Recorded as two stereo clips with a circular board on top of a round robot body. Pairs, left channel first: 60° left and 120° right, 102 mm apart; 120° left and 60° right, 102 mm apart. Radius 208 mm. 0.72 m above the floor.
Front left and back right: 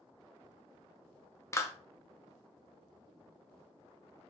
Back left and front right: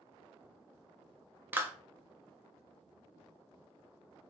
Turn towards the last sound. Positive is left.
turn(degrees=5)